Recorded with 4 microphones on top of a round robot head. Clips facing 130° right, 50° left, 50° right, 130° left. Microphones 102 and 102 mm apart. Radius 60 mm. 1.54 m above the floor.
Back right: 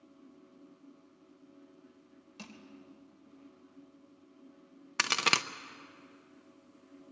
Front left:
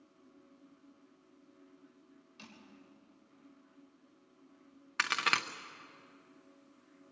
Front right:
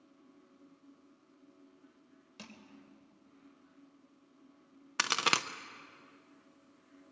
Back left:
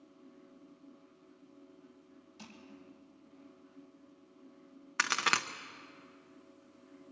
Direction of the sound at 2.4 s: 80° right.